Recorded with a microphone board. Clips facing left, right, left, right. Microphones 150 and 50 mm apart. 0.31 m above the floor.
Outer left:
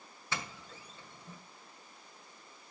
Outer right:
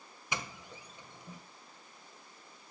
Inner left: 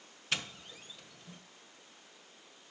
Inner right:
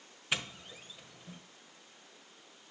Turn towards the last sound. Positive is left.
turn(degrees=-15)  # may be behind; listen again after turning